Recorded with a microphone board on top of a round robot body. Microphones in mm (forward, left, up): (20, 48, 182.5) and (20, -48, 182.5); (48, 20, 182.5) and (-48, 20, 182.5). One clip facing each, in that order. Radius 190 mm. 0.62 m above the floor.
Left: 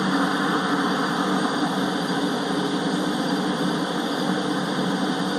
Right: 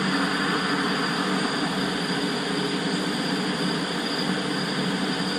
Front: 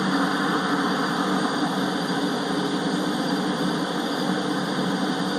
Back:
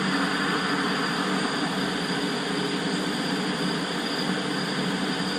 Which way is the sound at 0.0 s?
50° left.